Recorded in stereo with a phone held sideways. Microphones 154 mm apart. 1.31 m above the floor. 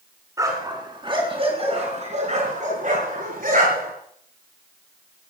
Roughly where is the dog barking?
Right.